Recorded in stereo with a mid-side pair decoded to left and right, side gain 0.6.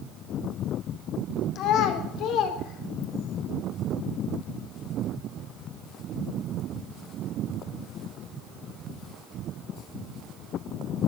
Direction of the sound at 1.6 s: 65° left.